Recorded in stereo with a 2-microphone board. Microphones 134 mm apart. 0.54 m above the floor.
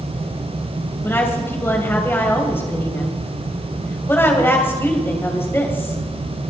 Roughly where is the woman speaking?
Centre.